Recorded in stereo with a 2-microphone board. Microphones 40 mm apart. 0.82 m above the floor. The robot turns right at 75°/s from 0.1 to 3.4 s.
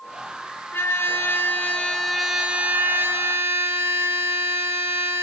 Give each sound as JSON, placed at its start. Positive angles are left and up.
{"t": 0.7, "sound": "a trumpet", "azimuth_deg": 70, "distance_m": 3.0}